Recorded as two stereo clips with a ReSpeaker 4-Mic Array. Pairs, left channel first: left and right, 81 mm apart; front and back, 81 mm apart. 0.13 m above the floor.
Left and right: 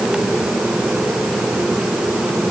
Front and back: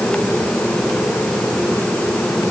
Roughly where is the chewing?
No chewing in this recording.